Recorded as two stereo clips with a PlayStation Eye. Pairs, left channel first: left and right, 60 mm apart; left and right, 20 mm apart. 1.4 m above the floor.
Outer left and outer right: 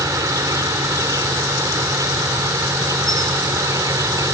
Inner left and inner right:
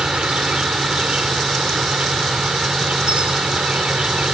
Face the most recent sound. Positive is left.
turn(degrees=-75)  # may be behind; listen again after turning